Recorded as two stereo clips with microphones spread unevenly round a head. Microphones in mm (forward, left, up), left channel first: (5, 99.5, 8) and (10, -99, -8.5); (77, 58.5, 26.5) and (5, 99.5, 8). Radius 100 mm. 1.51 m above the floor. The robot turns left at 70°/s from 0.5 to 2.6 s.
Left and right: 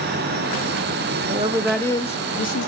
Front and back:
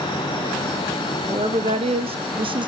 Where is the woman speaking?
140° right, 0.8 m; by 2.7 s 120° left, 0.8 m.